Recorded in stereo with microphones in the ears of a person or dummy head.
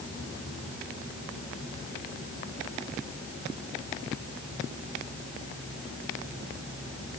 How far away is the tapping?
I don't hear tapping.